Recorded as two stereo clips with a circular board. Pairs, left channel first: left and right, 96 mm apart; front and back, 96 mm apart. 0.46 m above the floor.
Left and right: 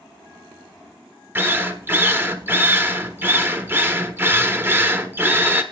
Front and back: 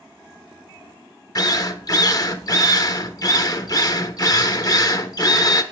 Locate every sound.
1.4 s a drill: 30° right, 0.7 m